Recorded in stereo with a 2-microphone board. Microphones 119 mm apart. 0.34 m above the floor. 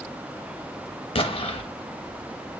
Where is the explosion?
50° left (ahead or behind), 0.5 m.